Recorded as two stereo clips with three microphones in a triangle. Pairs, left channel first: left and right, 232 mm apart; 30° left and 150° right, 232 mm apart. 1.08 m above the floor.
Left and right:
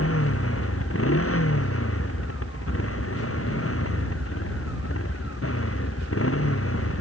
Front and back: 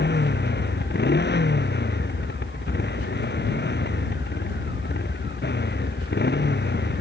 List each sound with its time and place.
0.0 s a motorcycle: 75° left